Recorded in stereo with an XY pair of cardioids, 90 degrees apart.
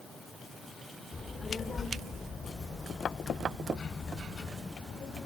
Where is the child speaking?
45° left, 2 m; by 5.3 s 50° left, 4.5 m.